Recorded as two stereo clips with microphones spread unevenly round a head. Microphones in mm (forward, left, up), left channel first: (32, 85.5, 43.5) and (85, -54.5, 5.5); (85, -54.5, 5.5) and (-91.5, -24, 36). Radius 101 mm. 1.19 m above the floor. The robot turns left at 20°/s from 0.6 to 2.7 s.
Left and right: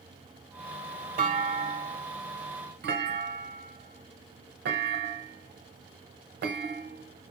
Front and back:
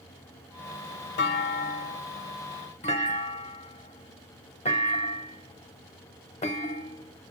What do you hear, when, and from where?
1.2 s a clunk: 35° right, 0.9 m; by 7.3 s 65° right, 0.9 m